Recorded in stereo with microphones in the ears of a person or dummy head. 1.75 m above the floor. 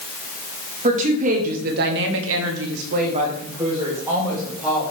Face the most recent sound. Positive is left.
turn(degrees=-5)  # may be behind; listen again after turning